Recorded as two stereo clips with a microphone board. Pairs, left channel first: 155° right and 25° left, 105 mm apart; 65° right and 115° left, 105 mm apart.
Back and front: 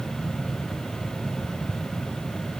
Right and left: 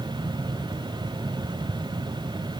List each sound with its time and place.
Only background noise.